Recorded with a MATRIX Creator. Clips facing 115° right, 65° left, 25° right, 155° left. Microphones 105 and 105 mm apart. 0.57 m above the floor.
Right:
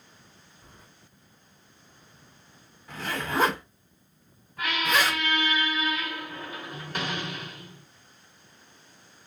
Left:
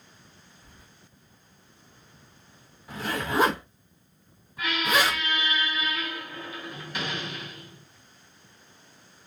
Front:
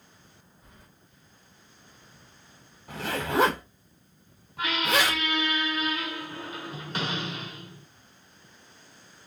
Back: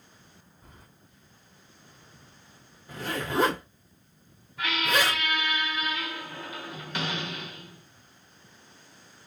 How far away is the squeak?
About 1.4 m.